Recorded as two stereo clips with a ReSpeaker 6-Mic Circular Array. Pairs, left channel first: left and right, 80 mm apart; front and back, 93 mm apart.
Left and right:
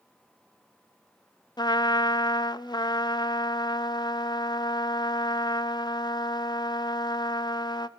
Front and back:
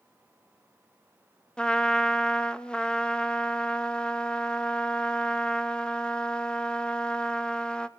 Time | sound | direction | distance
1.6 | a trumpet | 80° left | 0.6 m